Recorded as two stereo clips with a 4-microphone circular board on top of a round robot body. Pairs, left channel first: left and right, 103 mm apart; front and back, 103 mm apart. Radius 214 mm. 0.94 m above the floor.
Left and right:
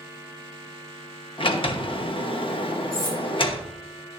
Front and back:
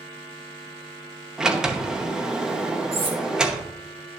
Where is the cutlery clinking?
145° left, 1.7 m.